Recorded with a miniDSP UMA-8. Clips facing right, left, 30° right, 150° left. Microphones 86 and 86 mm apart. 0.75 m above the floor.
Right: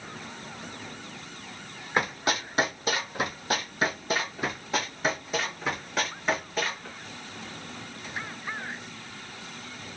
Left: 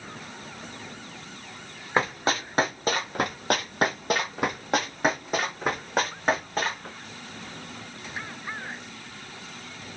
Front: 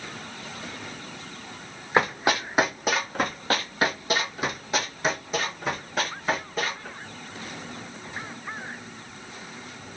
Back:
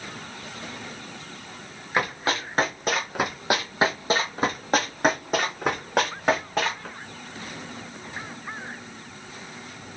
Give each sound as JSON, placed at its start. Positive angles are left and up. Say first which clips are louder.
{"t": 2.0, "sound": "running footsteps", "louder": "left 2 dB, front 3 dB", "azimuth_deg": 30, "distance_m": 1.6}